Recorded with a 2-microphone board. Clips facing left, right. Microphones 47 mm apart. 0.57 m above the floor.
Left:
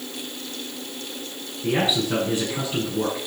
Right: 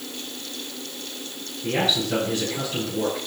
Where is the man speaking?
20° left (ahead or behind), 7.5 m.